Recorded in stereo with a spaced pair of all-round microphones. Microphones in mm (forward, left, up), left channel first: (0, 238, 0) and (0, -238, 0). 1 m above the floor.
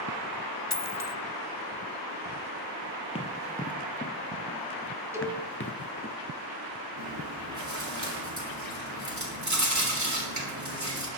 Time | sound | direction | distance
0.7 | a dropped coin | 35° left (ahead or behind) | 0.8 m
3.1 | running footsteps | 15° left (ahead or behind) | 1.4 m
5.1 | a cowbell | 5° right (ahead or behind) | 2 m
7.0 | chewing | 35° right (ahead or behind) | 3.5 m